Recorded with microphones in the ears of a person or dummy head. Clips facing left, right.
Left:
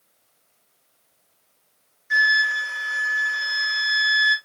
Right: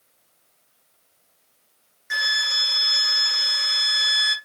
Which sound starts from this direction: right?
A flute, at 2.1 s.